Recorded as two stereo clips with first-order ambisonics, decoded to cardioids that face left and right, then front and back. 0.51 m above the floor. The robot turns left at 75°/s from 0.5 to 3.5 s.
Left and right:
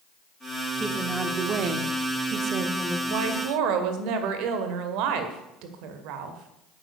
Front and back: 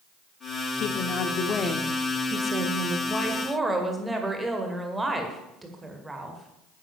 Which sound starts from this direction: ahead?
A woman speaking, at 0.8 s.